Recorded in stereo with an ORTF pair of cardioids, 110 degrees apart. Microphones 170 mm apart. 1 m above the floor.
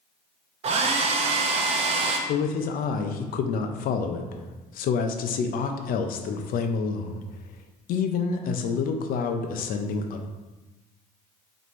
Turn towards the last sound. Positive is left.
turn(degrees=60)